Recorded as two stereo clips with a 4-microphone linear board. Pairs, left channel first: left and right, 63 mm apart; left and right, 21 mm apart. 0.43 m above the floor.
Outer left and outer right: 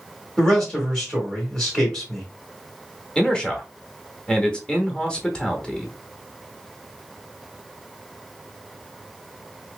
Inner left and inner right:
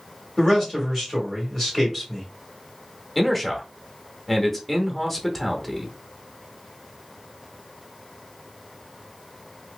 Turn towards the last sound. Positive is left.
turn(degrees=15)  # may be behind; listen again after turning